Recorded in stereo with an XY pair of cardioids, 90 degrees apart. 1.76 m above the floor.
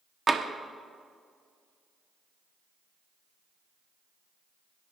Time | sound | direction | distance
0.3 | tapping | 30° right | 1.4 m